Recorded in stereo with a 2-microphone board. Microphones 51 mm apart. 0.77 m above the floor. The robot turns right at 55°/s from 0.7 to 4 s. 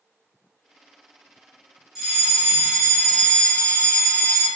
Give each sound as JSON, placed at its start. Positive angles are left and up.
{"t": 1.9, "sound": "a fire alarm", "azimuth_deg": -15, "distance_m": 1.8}